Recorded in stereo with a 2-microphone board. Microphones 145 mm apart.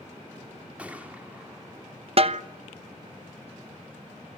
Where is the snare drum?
45° right (ahead or behind), 0.9 m.